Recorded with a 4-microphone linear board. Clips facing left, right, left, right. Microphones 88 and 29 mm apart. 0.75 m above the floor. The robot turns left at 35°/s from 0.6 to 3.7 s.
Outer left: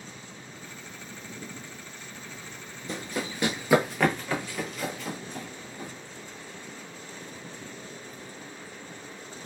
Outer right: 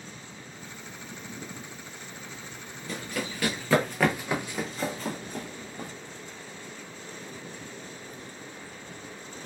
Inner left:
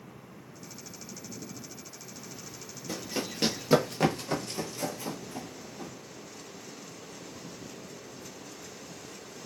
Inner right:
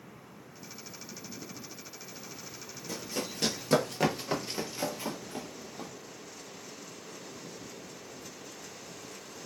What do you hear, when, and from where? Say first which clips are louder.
2.9 s running footsteps: outer left 1 dB, inner left 2 dB; 25° left (ahead or behind), 0.9 m; by 5.9 s 55° right (ahead or behind), 1.3 m